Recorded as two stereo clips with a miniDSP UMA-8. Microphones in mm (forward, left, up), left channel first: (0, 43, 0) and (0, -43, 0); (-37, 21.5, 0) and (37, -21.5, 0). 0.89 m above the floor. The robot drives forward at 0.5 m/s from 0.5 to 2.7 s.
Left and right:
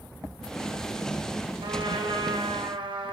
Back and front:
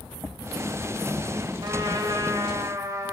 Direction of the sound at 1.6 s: 70° right.